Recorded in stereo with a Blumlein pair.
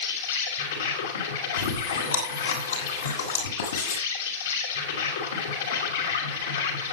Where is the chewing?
70° left, 6 m.